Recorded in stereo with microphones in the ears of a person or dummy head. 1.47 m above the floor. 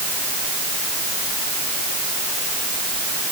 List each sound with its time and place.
Only background noise.